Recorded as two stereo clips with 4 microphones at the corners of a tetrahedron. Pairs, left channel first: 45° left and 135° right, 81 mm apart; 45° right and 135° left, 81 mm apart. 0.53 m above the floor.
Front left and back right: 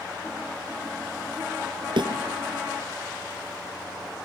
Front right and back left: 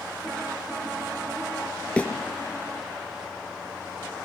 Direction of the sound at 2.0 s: 120° right.